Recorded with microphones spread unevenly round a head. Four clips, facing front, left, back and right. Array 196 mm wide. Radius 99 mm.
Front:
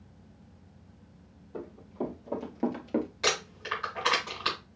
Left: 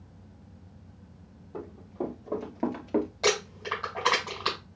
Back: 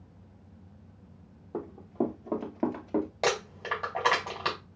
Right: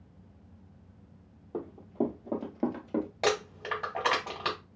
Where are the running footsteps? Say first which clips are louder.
Right 4 dB, back 5 dB; 145° right, 2.5 m; by 3.1 s 85° left, 1.5 m.